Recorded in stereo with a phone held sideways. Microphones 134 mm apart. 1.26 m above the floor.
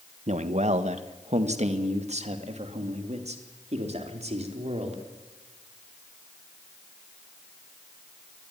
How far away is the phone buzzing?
I don't hear a phone buzzing.